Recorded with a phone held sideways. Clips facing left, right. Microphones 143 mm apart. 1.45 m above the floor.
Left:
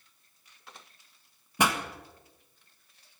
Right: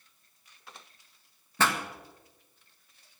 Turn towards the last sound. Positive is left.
turn(degrees=15)  # may be behind; listen again after turning